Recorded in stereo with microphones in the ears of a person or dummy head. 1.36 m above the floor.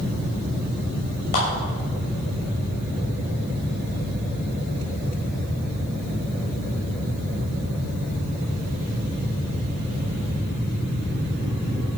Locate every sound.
1.3 s a clap: 50° left (ahead or behind), 6 m